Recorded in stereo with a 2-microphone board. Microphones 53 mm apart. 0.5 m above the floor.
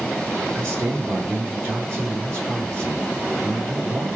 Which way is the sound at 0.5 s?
70° right (ahead or behind).